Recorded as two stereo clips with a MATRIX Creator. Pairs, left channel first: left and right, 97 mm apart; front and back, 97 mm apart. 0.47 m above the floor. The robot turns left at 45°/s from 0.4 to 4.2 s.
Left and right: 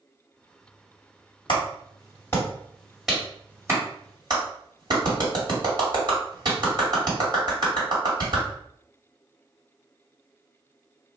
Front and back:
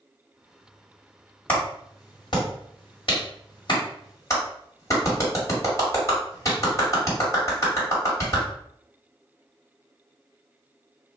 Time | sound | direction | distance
1.5 | a clap | 65° left | 1.9 m